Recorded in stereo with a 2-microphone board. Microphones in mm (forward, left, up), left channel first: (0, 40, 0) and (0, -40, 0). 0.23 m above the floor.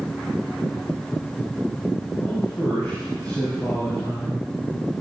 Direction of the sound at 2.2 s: 30° left (ahead or behind).